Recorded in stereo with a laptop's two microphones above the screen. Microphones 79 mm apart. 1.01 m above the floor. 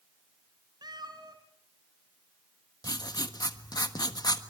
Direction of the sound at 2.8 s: 65° left (ahead or behind).